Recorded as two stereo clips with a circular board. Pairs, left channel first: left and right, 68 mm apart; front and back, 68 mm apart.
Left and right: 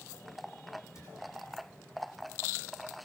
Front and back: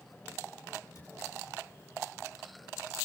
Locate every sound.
0.9 s a cupboard door: 45° left, 7 m